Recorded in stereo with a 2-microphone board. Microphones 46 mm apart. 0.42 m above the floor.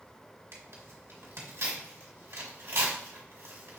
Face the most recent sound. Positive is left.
turn(degrees=-70)  # may be behind; listen again after turning